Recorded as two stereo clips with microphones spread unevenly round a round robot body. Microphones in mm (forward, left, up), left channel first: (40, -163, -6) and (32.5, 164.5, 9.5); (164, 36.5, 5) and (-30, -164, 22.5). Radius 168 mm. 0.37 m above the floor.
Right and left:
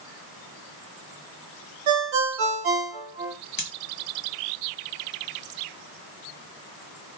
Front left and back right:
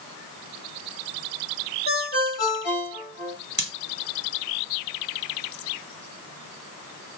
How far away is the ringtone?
About 0.8 m.